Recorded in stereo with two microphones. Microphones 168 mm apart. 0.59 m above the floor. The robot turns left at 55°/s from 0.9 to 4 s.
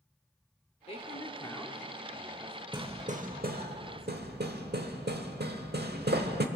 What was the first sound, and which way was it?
A man speaking, 50° left.